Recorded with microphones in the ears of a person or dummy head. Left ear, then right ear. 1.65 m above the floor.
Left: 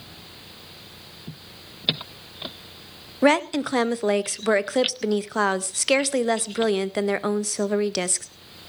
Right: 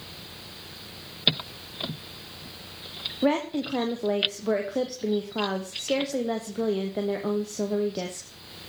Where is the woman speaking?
50° left (ahead or behind), 0.6 m.